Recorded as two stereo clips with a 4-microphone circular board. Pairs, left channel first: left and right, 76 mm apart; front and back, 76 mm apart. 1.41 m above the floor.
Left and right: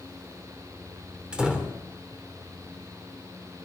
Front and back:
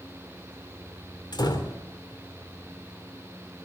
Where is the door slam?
10° right, 3 m.